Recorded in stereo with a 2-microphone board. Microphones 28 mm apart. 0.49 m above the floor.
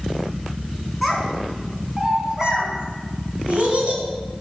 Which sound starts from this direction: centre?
A child speaking, at 1.0 s.